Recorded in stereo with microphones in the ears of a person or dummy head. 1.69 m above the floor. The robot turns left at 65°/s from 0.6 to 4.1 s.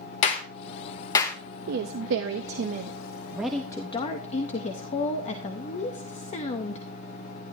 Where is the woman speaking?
65° right, 0.7 m; by 6.8 s 135° left, 0.7 m.